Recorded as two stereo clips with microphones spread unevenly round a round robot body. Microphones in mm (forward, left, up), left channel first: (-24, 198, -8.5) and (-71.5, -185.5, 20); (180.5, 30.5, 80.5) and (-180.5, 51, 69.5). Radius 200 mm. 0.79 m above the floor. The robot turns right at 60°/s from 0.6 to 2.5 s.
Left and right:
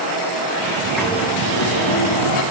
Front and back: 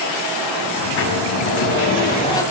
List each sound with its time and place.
0.8 s a sliding door: 20° right, 4 m; by 2.4 s 80° left, 4 m